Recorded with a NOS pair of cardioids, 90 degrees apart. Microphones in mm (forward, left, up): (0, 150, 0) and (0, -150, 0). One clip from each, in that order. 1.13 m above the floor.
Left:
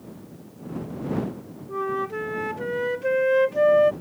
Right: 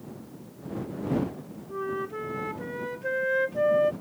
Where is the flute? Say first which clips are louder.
Left 5 dB; 35° left.